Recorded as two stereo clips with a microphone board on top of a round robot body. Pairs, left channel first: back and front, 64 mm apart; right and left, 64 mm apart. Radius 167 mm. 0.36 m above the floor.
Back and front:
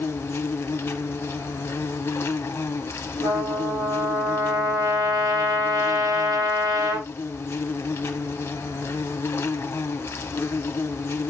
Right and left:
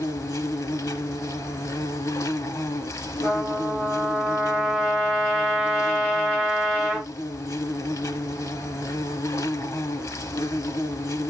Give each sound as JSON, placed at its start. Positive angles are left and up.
{"t": 0.0, "sound": "an insect", "azimuth_deg": -125, "distance_m": 0.8}
{"t": 3.2, "sound": "a trumpet", "azimuth_deg": -15, "distance_m": 9.0}